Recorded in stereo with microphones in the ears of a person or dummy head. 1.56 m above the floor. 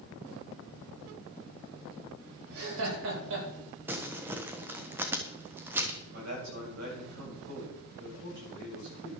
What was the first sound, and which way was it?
Laughter, 85° right.